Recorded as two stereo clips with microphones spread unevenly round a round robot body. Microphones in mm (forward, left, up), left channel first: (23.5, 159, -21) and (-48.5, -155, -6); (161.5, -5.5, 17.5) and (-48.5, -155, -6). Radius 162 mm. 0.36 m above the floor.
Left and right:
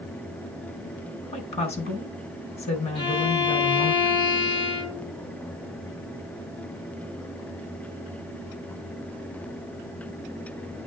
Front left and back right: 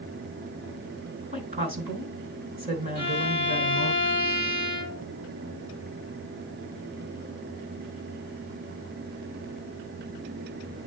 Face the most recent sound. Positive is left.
turn(degrees=155)